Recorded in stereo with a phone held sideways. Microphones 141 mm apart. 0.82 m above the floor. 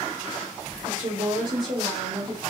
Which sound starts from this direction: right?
A woman speaking, at 0.8 s.